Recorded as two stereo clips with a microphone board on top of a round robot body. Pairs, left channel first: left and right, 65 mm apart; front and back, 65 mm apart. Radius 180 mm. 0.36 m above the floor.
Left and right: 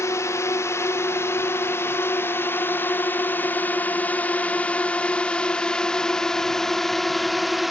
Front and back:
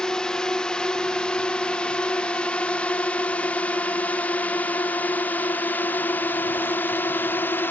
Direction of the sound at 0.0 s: 75° left.